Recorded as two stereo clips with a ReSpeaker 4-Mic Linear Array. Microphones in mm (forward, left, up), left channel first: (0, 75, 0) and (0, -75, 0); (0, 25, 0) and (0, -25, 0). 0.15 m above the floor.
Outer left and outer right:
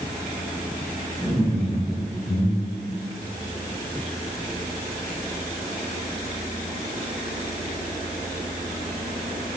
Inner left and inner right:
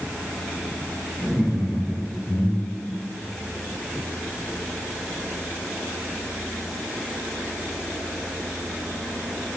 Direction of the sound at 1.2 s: 5° left (ahead or behind).